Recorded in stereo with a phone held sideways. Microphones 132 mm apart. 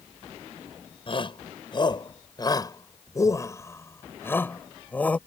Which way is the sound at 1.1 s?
40° left (ahead or behind).